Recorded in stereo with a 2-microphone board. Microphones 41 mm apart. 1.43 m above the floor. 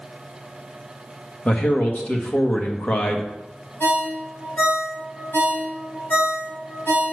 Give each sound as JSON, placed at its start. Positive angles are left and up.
{"t": 1.4, "sound": "a man speaking", "side_deg": 40, "distance_m": 1.5}
{"t": 3.8, "sound": "a ringtone", "side_deg": 65, "distance_m": 3.5}